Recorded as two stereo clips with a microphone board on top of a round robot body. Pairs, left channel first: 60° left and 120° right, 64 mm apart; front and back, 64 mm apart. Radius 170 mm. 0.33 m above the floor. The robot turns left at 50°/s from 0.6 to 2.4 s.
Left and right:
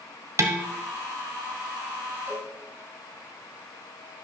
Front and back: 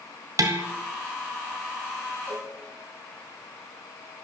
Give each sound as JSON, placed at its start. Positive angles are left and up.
{"t": 0.4, "sound": "dishes clattering", "azimuth_deg": -155, "distance_m": 1.5}
{"t": 2.3, "sound": "a cowbell", "azimuth_deg": -170, "distance_m": 6.5}